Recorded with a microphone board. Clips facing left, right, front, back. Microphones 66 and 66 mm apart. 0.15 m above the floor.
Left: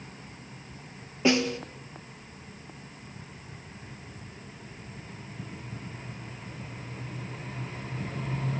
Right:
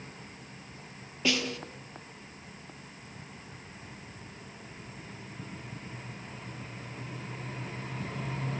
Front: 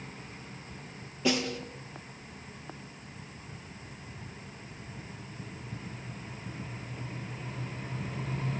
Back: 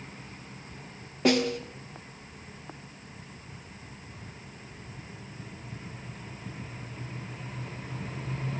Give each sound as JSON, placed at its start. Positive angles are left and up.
{"t": 1.2, "sound": "a snare drum", "azimuth_deg": 150, "distance_m": 2.5}